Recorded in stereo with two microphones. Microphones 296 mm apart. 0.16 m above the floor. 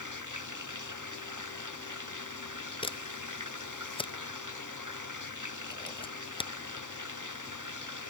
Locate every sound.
0.0 s running water: 85° right
2.8 s a camera shutter: 15° left (ahead or behind)